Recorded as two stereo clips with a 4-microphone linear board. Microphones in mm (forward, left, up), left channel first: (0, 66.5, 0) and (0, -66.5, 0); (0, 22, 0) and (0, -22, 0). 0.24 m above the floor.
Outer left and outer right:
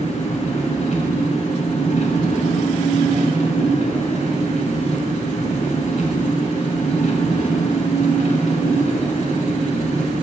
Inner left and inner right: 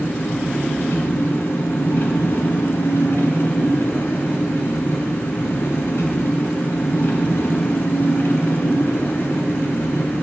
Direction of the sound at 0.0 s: 60° left (ahead or behind).